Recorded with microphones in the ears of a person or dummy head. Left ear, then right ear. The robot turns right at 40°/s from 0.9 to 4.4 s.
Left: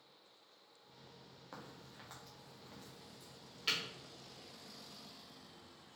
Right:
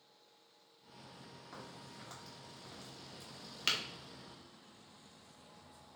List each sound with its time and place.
1.5 s a crack: 30° left (ahead or behind), 1.0 m; by 3.8 s 65° right (ahead or behind), 1.0 m